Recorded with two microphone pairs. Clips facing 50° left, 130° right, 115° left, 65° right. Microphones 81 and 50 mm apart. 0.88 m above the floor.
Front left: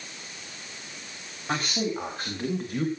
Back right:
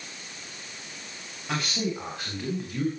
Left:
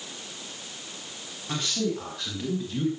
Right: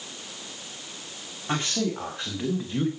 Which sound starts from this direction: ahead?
A man speaking, at 1.5 s.